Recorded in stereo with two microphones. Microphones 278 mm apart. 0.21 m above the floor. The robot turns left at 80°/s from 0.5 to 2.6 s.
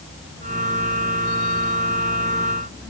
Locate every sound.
Only background noise.